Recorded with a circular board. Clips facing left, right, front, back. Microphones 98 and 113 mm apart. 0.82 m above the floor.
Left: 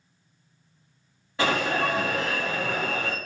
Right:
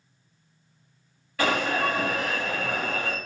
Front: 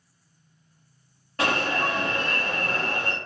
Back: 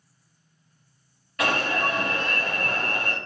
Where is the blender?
I don't hear a blender.